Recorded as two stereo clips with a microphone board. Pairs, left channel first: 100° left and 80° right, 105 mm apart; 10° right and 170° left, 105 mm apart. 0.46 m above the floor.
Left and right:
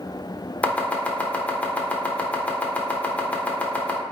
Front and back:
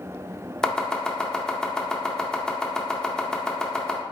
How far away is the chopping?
About 0.7 m.